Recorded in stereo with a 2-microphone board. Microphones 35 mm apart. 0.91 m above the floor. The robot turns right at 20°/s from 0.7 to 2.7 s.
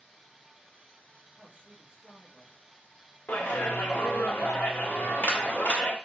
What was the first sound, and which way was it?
A man speaking, 45° right (ahead or behind).